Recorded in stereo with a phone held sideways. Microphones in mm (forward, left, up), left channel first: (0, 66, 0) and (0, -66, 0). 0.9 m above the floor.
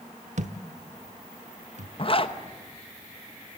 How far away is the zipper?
About 0.9 m.